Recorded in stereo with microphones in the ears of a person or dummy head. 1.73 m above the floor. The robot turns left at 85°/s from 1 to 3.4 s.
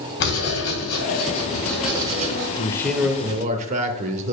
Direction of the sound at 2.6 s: 30° left.